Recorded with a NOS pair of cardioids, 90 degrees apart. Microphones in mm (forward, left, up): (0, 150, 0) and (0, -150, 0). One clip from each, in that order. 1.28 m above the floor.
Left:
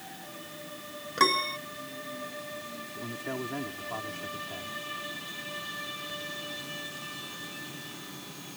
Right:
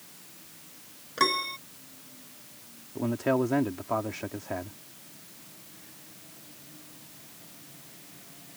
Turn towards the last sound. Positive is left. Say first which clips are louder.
# right 11 dB
turn(degrees=-70)